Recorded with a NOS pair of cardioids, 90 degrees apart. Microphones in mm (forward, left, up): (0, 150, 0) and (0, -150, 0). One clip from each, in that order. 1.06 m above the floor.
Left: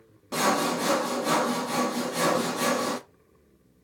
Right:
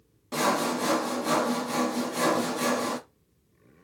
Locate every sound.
0.3 s sawing: 5° left, 0.8 m